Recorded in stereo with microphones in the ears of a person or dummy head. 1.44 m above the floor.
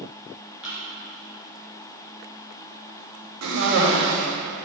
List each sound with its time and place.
0.6 s a thud: 5° right (ahead or behind), 3 m
3.4 s a cough: 80° right, 2.5 m